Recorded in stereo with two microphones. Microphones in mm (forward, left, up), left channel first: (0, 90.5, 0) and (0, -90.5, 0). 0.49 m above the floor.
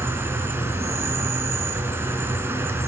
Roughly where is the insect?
Centre.